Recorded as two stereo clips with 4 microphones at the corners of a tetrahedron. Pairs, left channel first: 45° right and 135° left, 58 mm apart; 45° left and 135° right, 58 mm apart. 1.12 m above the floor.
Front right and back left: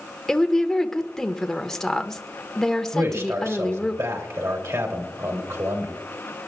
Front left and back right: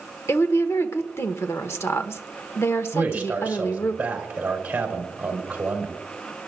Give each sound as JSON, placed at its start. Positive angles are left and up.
{"t": 0.3, "sound": "a woman speaking", "azimuth_deg": 35, "distance_m": 1.0}
{"t": 2.9, "sound": "a man speaking", "azimuth_deg": 160, "distance_m": 3.0}